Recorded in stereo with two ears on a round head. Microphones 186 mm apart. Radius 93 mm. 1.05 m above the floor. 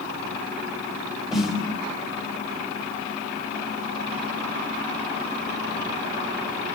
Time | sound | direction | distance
1.3 | a snare drum | centre (ahead or behind) | 3.5 m